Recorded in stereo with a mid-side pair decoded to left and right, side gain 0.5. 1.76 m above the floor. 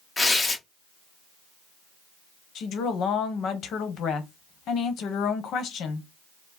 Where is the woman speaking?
60° left, 1.1 m.